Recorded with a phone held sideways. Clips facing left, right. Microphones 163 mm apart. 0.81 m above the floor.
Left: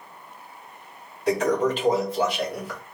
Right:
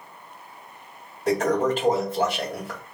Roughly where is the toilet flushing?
Right.